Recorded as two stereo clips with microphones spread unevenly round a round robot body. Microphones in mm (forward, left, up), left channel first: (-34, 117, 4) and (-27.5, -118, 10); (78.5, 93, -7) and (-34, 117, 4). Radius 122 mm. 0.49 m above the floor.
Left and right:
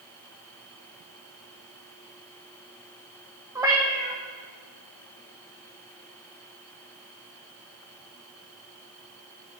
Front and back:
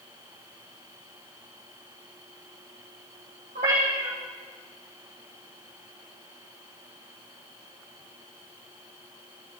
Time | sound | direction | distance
3.5 | a cat meowing | 165° right | 3 m